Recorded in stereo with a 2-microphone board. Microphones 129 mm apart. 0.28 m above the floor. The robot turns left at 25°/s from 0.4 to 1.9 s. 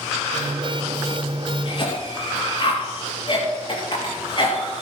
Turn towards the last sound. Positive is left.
turn(degrees=40)  # may be behind; listen again after turning